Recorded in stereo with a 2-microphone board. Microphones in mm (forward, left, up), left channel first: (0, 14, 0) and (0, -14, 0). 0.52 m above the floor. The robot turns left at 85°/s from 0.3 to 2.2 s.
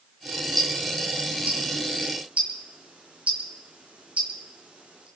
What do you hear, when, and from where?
0.6 s ticking: 10° left (ahead or behind), 3.5 m; by 5.1 s 50° right (ahead or behind), 3.5 m